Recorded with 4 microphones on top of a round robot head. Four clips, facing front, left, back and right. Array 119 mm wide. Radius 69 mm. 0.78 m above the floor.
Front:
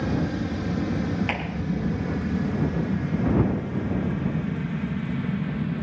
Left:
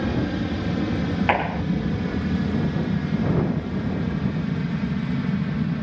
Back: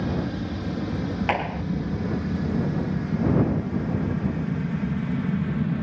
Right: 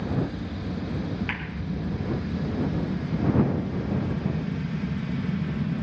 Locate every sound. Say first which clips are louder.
0.0 s an aircraft: left 5 dB, front 2 dB; 70° left; by 5.8 s 115° left
1.3 s a clap: left 12 dB, back 4 dB; 115° left